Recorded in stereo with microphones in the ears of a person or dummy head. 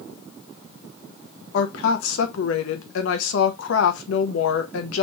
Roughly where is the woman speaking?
Left.